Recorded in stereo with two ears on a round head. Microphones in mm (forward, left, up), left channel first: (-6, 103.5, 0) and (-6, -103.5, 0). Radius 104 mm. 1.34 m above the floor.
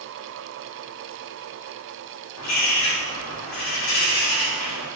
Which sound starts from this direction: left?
A bird, at 2.4 s.